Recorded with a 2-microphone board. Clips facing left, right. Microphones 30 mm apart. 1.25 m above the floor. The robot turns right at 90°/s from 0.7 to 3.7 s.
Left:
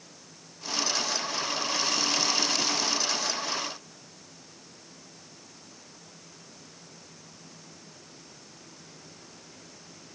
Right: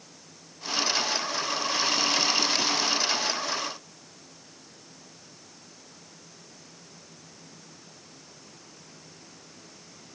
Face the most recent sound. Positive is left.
No sound to turn to.